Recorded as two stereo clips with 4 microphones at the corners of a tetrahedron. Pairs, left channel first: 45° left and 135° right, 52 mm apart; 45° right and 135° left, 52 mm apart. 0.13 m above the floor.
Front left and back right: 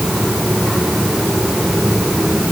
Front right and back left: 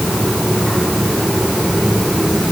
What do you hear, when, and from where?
Only background noise.